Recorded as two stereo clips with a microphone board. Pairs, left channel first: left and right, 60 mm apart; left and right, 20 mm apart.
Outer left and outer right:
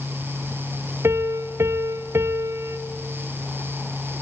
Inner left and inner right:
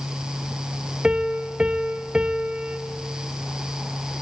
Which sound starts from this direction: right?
A piano, at 1.0 s.